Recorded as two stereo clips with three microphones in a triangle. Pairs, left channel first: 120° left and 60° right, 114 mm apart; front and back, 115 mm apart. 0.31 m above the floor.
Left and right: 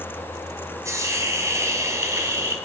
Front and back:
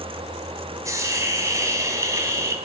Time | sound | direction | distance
0.8 | a hiss | 120° right | 1.8 m